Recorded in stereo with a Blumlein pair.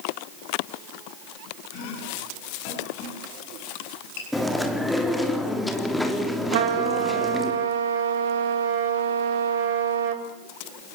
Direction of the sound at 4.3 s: Straight ahead.